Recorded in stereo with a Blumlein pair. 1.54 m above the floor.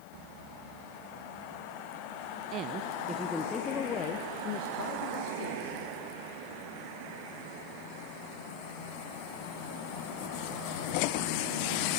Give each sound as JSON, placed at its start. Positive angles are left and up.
{"t": 2.5, "sound": "a woman speaking", "azimuth_deg": -35, "distance_m": 1.2}